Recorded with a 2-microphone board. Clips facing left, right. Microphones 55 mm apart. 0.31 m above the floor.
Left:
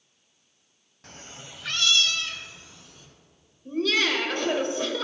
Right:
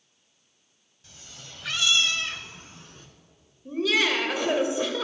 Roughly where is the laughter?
Centre.